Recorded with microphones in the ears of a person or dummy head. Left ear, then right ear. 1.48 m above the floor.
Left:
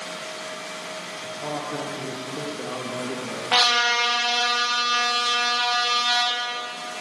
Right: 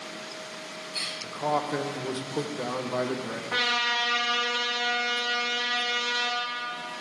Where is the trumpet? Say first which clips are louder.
Left 7 dB; 80° left, 1.8 m.